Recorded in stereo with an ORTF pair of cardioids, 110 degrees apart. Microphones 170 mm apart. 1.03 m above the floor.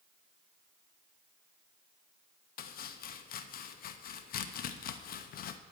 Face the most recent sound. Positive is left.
turn(degrees=60)